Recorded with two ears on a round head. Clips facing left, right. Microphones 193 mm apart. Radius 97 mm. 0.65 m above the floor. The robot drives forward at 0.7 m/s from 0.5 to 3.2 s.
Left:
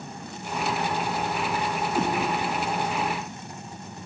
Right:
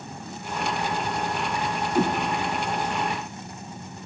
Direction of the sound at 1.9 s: 10° right (ahead or behind).